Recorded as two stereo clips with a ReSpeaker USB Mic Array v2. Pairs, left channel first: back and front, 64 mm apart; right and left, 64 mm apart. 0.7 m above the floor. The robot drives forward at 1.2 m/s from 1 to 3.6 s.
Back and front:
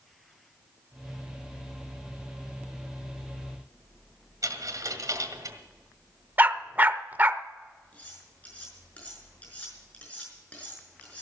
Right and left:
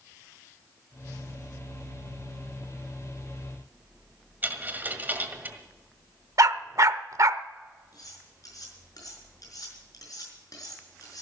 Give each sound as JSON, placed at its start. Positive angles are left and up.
{"t": 4.4, "sound": "a dropped coin", "azimuth_deg": 30, "distance_m": 1.6}
{"t": 6.4, "sound": "a dog barking", "azimuth_deg": 65, "distance_m": 0.6}
{"t": 7.9, "sound": "cutlery clinking", "azimuth_deg": -110, "distance_m": 5.5}